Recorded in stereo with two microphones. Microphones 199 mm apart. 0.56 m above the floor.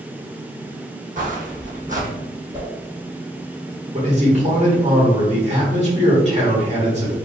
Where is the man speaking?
35° right (ahead or behind), 1.7 m.